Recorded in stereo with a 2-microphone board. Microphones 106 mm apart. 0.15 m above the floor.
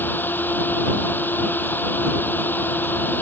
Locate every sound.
0.0 s a drone: 20° left (ahead or behind)